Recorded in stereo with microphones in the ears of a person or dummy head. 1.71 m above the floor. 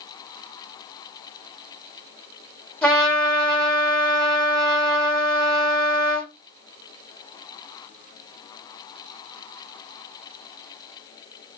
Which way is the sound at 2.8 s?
10° left (ahead or behind).